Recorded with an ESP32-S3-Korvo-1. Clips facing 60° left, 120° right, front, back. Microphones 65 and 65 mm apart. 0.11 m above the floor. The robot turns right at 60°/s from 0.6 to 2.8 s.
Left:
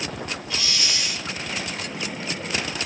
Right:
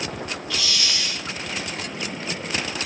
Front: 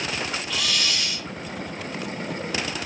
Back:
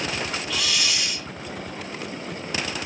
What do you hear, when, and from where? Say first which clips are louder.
0.5 s a hiss: right 1 dB, even; 90° left, 0.8 m; by 1.3 s 130° left, 0.8 m